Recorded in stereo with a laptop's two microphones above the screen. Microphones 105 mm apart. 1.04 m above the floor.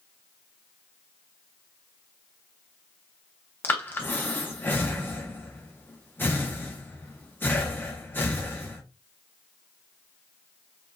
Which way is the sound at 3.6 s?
20° left (ahead or behind).